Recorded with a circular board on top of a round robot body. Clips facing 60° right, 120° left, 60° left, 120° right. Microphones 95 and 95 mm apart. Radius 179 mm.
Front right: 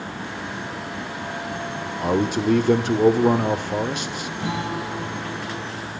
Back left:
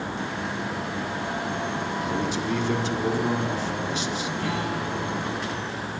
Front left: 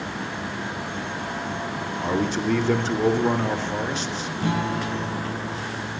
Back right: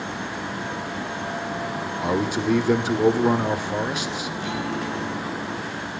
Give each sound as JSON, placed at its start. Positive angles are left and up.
{"t": 2.0, "sound": "a man speaking", "azimuth_deg": -40, "distance_m": 2.5}
{"t": 4.4, "sound": "a guitar", "azimuth_deg": 10, "distance_m": 4.5}